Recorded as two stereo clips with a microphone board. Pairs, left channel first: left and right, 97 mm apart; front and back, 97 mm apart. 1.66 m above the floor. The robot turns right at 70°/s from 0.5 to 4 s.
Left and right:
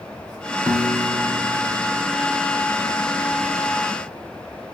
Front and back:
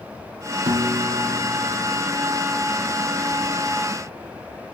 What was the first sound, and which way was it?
A piano, 150° right.